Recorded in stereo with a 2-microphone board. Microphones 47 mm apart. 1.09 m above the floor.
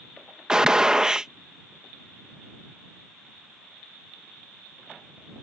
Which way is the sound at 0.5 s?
15° right (ahead or behind).